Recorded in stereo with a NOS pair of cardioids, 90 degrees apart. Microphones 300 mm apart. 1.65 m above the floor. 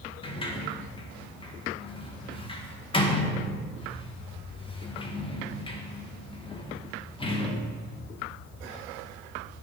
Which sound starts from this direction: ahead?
A sliding door, at 0.2 s.